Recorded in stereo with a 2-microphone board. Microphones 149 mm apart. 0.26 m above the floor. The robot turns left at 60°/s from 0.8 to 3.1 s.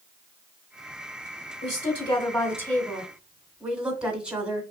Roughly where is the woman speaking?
Left.